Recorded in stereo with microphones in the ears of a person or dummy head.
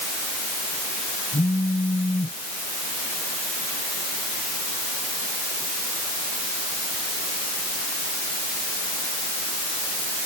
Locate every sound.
1.3 s a phone buzzing: 25° left (ahead or behind)